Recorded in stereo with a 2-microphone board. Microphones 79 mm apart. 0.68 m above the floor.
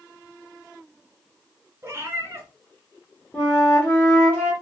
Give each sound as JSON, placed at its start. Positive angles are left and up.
{"t": 1.8, "sound": "a cat meowing", "side_deg": -30, "distance_m": 0.9}
{"t": 3.3, "sound": "a flute", "side_deg": 20, "distance_m": 1.2}